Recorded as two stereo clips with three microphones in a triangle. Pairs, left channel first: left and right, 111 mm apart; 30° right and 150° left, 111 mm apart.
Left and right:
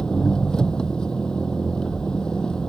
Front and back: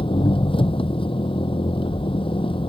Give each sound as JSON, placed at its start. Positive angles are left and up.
{"t": 0.0, "sound": "an engine running", "azimuth_deg": 5}